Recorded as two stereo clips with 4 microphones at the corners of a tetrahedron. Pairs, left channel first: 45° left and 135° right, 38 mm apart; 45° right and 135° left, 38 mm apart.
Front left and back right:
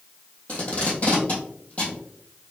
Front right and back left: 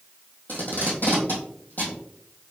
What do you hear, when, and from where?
0.5 s tape being pulled: 10° right, 1.7 m